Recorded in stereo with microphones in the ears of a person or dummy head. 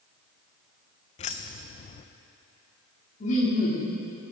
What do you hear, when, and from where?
1.2 s keys jangling: 30° left (ahead or behind), 0.7 m
3.2 s laughter: 35° left (ahead or behind), 3 m